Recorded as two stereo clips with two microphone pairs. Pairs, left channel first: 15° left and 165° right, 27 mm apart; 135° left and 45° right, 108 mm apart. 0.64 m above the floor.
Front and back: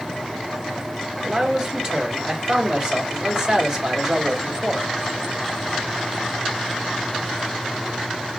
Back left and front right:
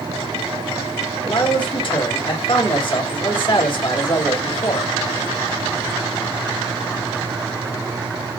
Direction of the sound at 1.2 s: 140° left.